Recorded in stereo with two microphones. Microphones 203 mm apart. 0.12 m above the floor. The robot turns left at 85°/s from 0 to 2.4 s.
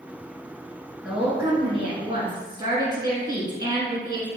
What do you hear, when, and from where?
1.0 s a woman speaking: 5° right (ahead or behind), 1.5 m; by 4.3 s 20° right (ahead or behind), 1.5 m